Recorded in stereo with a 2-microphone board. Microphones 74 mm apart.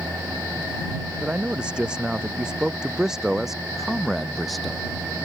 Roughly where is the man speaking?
Centre.